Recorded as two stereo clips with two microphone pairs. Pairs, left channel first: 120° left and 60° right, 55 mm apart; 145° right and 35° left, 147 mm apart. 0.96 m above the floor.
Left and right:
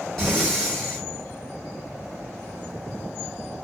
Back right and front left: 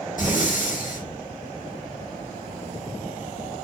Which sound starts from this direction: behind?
Breathing, at 0.2 s.